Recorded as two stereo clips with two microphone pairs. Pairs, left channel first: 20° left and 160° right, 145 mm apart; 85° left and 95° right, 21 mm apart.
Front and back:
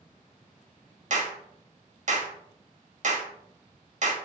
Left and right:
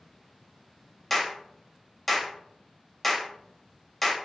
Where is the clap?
165° left, 1.0 m.